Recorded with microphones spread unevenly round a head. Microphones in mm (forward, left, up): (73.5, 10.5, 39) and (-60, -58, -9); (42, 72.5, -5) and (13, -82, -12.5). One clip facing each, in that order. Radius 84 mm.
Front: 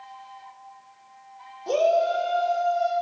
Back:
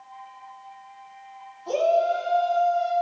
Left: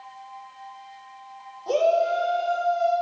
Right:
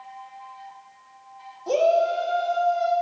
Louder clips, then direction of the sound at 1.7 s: Even, right 1 dB; 20° right.